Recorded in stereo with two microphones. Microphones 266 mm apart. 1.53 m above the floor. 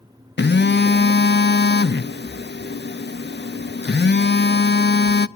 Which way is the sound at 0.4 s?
40° left (ahead or behind).